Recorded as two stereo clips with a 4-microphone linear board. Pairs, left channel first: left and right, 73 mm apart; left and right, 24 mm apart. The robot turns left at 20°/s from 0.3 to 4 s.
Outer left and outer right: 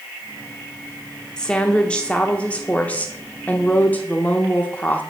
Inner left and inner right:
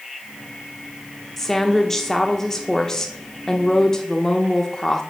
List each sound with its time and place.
1.4 s a woman speaking: 10° left (ahead or behind), 0.7 m; by 5.0 s 25° left (ahead or behind), 0.7 m